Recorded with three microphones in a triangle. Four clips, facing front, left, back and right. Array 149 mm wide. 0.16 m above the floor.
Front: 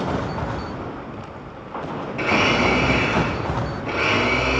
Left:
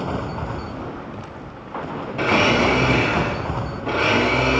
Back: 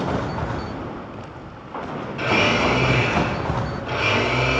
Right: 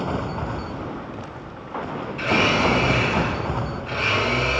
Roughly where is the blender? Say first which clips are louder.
Left 3 dB, even; left.